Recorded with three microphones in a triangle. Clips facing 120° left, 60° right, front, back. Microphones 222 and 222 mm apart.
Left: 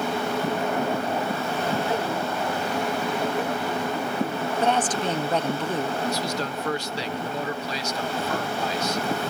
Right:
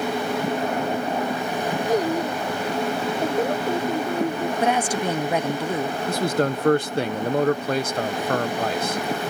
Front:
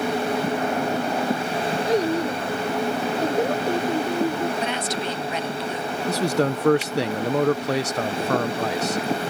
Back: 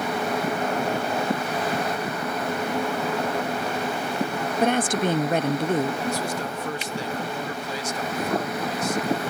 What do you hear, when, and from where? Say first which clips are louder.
1.9 s a child speaking: right 5 dB, front 7 dB; 10° right; by 4.5 s 15° right
4.6 s a woman speaking: right 1 dB, back 5 dB; 140° right
6.1 s a man speaking: right 6 dB, front 6 dB; 20° right